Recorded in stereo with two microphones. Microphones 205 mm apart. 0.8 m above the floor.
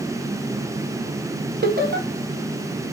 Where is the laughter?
45° right (ahead or behind), 0.6 m.